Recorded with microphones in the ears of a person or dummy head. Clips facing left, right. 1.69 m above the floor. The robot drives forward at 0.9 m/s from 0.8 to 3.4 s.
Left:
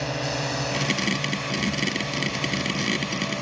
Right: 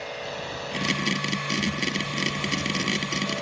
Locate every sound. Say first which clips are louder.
0.0 s a drone: left 6 dB; 60° left (ahead or behind); by 3.4 s 55° left (ahead or behind)